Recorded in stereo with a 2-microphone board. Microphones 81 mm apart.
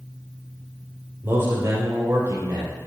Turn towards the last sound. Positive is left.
turn(degrees=-60)  # may be behind; listen again after turning